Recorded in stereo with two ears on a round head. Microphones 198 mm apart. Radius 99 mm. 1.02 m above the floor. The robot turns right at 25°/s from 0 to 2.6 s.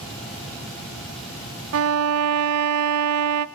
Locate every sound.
1.7 s a violin: 70° right (ahead or behind), 0.6 m; by 3.5 s 85° right, 0.6 m